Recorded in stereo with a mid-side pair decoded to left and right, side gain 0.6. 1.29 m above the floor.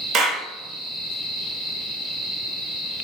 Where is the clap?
65° right, 1.4 m.